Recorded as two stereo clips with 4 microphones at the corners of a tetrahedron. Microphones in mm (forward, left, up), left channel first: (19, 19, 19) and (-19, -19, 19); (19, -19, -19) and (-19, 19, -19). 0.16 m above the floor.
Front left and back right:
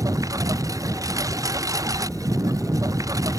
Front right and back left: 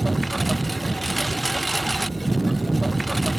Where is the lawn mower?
135° right.